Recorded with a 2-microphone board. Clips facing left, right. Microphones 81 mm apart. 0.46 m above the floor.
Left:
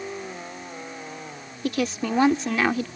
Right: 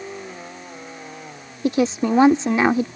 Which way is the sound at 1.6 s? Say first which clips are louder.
Right 6 dB; 25° right (ahead or behind).